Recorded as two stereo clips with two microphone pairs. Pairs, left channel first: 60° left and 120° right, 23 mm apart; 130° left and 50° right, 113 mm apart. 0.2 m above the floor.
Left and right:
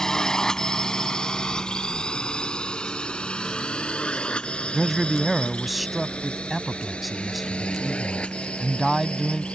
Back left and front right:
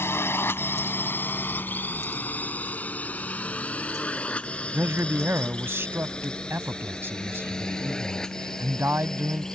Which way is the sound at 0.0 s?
85° left.